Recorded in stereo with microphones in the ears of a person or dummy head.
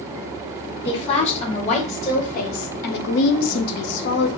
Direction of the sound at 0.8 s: 35° left (ahead or behind).